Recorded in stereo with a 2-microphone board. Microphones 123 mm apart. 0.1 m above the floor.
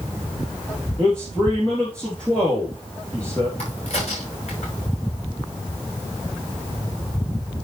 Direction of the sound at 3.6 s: 55° left (ahead or behind).